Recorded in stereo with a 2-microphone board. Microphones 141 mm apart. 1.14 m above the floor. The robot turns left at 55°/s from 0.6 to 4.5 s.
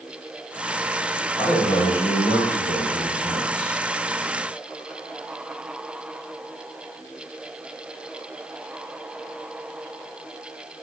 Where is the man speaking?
175° left, 0.9 m; by 3.8 s 45° left, 0.9 m.